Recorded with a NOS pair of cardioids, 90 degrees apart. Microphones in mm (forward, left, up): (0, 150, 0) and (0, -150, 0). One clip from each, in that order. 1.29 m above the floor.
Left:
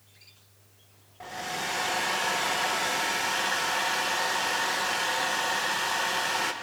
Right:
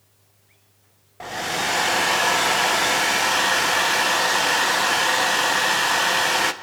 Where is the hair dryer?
45° right, 0.9 m.